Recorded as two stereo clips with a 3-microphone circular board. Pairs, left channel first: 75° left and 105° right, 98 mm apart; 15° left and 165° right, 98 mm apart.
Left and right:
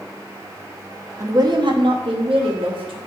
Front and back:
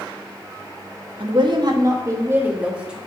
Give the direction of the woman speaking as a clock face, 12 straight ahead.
5 o'clock.